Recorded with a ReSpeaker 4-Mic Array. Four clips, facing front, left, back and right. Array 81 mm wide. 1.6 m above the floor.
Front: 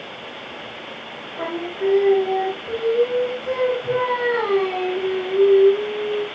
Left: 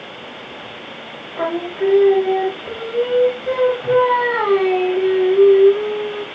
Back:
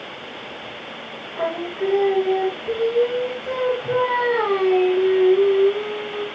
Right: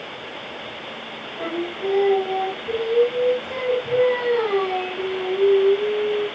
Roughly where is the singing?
Left.